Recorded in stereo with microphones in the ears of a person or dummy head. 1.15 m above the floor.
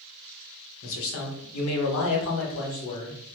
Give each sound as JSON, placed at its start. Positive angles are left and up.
{"t": 0.8, "sound": "a man speaking", "side_deg": 75, "distance_m": 1.1}